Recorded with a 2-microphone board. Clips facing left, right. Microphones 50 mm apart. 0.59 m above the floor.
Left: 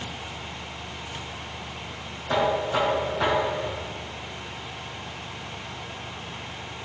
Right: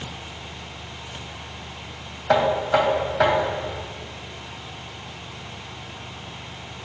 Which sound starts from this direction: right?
Knocking, at 2.3 s.